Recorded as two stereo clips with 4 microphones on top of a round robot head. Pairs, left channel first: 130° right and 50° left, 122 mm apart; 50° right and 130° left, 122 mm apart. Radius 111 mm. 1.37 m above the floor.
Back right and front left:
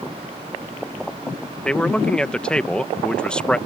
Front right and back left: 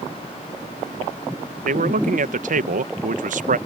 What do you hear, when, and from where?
1.6 s a man speaking: 145° left